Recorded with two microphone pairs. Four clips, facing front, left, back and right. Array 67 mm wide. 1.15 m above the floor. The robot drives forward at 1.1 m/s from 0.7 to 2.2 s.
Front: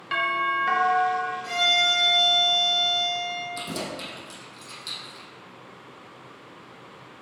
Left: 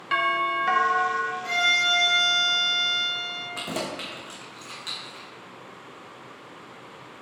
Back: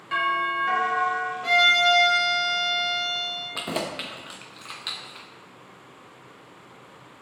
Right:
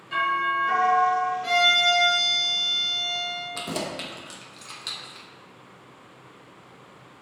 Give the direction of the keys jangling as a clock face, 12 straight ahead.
6 o'clock.